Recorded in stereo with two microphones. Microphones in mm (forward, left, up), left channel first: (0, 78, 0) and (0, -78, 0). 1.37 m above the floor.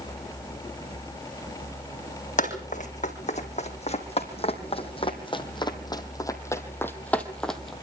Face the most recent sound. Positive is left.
turn(degrees=0)  # may be behind; listen again after turning